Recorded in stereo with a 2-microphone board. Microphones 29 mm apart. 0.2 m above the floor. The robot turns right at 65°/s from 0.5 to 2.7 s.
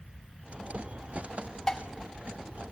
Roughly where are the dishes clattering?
Left.